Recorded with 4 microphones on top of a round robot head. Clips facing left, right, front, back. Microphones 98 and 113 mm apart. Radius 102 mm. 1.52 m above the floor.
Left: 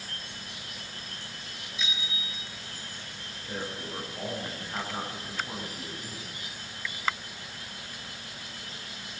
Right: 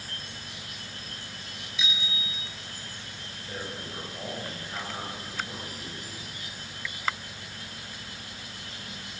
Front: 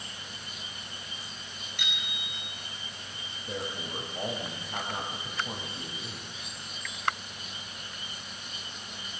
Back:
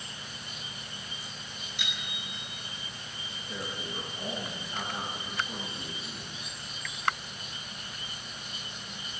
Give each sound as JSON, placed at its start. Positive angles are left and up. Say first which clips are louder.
{"t": 1.8, "sound": "a bicycle bell", "louder": "right 2 dB, front 1 dB", "azimuth_deg": -50, "distance_m": 9.0}
{"t": 3.5, "sound": "a man speaking", "louder": "left 2 dB, front 3 dB", "azimuth_deg": 0, "distance_m": 7.5}